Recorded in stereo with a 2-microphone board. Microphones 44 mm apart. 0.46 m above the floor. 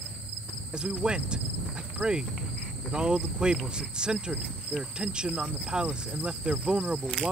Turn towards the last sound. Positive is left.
turn(degrees=-25)  # may be behind; listen again after turning